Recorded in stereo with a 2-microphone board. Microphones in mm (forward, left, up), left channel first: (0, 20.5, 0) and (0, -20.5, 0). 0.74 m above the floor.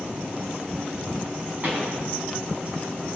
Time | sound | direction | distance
1.6 | a pop | 40° right (ahead or behind) | 3.5 m